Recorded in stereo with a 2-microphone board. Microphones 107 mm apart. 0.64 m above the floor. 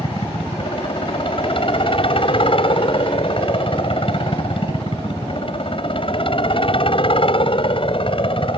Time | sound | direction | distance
0.0 | a helicopter | 55° left (ahead or behind) | ?